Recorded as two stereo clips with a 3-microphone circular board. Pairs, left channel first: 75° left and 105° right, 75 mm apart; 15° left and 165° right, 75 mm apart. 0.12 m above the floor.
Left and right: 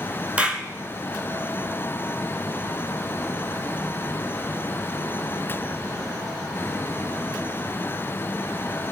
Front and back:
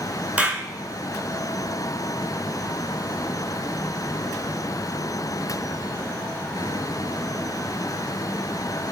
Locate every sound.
0.4 s a clap: 135° right, 1.0 m